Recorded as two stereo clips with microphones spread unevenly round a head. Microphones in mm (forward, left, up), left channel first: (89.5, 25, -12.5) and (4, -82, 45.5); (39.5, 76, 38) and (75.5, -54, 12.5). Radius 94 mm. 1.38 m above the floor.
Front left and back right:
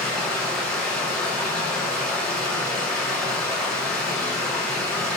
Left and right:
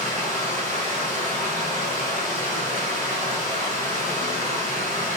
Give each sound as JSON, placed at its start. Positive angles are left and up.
{"t": 0.0, "sound": "running water", "azimuth_deg": -40, "distance_m": 5.5}